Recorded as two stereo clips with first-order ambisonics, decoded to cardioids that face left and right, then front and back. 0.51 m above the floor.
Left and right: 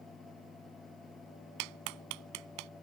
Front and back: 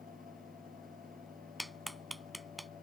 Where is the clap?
90° right.